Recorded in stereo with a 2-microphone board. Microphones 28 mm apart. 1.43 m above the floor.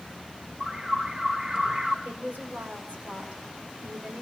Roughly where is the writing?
I don't hear writing.